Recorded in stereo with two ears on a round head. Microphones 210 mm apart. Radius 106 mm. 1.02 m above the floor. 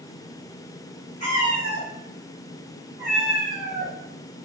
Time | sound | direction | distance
1.2 | a cat meowing | 25° left (ahead or behind) | 1.5 m